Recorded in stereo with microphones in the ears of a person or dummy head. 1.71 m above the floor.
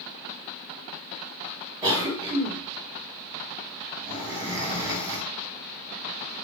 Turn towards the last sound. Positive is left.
turn(degrees=-15)  # may be behind; listen again after turning